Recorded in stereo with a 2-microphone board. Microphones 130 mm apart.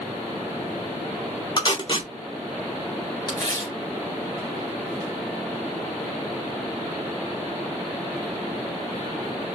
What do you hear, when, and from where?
1.6 s tape being pulled: 35° left (ahead or behind), 1.5 m
3.3 s tearing paper: 30° left (ahead or behind), 2.5 m